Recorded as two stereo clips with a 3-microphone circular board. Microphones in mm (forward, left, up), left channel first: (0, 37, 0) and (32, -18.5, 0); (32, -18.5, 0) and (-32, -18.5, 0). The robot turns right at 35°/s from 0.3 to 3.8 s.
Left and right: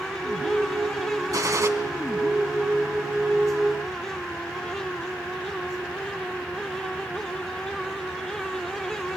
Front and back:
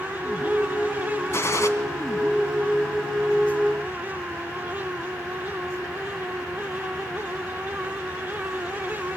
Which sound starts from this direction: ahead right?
A gunshot, at 1.3 s.